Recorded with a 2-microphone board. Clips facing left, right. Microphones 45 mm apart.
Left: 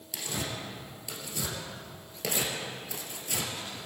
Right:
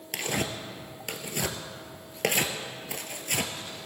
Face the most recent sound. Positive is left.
turn(degrees=-60)  # may be behind; listen again after turning